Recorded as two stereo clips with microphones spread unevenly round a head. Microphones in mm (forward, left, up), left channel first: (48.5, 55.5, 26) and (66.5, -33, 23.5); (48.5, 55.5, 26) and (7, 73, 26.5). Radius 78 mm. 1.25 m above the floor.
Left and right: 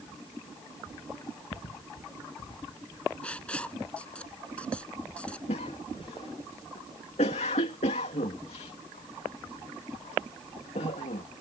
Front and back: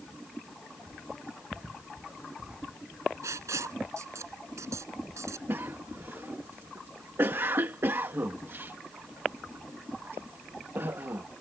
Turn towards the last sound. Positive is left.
turn(degrees=125)